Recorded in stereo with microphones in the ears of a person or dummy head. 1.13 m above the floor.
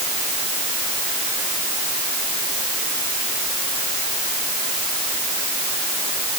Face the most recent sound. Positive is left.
No sound to turn to.